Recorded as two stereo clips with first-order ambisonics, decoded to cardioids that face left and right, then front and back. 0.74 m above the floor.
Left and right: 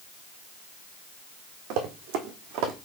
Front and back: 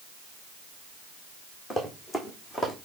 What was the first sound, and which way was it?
Running footsteps, 80° right.